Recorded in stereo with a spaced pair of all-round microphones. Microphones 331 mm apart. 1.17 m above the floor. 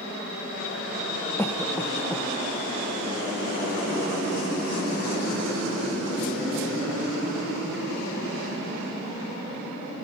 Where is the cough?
5° left (ahead or behind), 1.0 m.